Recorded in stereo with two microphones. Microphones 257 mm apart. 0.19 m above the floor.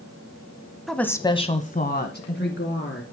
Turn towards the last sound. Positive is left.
turn(degrees=50)  # may be behind; listen again after turning